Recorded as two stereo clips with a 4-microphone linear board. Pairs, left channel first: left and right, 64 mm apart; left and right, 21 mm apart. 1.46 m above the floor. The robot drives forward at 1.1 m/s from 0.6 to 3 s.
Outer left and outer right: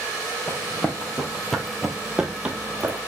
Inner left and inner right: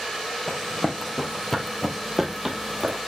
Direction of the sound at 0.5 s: 20° left (ahead or behind).